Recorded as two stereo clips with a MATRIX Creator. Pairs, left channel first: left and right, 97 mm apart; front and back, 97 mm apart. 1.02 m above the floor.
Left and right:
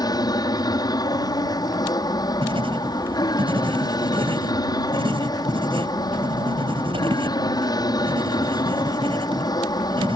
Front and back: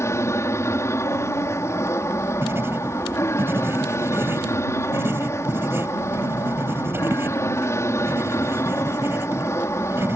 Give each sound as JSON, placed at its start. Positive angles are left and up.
{"t": 0.0, "sound": "an aircraft", "azimuth_deg": 55}
{"t": 2.4, "sound": "writing", "azimuth_deg": -115}